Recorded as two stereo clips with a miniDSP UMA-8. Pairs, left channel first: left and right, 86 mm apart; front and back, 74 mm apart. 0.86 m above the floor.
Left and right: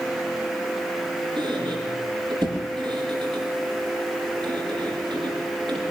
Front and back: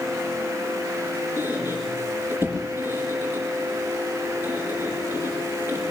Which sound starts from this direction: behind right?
A squeak, at 1.4 s.